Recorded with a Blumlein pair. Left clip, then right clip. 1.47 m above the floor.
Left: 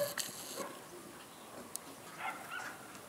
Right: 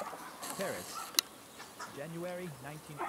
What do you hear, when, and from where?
0.6 s a man speaking: 50° right